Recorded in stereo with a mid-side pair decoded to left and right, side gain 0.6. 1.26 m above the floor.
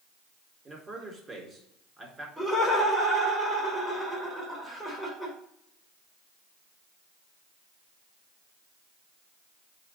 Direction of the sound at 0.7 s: 25° right.